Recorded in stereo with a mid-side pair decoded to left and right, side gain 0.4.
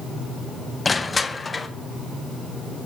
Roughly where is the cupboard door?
No cupboard door in this recording.